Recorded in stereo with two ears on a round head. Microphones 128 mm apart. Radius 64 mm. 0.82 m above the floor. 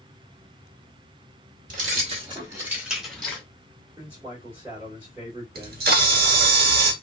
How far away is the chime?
No chime in this recording.